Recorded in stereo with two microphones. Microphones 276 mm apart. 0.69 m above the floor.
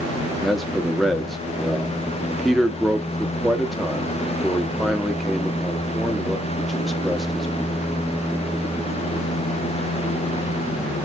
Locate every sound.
0.4 s a man speaking: centre (ahead or behind), 0.8 m